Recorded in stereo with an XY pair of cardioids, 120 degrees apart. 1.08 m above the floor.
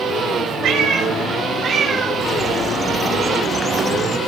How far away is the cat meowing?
About 2.5 m.